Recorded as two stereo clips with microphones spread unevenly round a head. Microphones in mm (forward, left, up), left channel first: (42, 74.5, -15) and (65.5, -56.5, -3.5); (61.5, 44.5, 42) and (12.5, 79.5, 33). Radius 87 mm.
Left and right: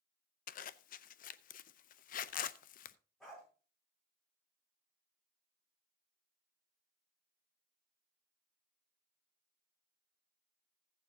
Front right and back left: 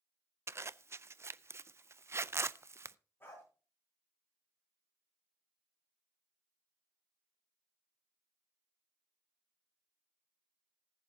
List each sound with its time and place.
0.5 s a zipper: 105° left, 0.5 m
3.2 s a dog barking: 10° left, 9 m